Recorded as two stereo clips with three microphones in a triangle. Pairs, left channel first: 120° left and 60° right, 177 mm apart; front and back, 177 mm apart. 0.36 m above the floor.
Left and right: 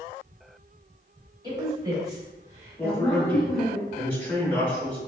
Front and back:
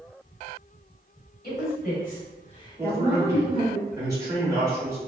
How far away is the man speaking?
About 0.9 m.